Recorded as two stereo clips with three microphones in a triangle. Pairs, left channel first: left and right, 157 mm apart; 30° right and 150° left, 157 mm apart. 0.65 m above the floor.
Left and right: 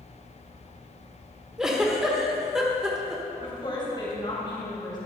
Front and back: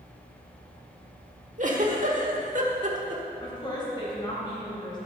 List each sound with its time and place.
1.6 s a giggle: 175° right, 1.2 m
3.4 s a woman speaking: 30° left, 3 m